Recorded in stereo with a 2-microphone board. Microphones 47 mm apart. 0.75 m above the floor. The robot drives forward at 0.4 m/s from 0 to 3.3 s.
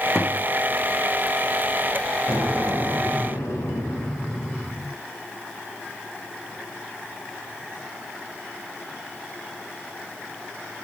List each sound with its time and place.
0.1 s a thud: 30° left (ahead or behind), 3.5 m
2.3 s an explosion: 90° left, 6 m; by 4.9 s 85° left, 6 m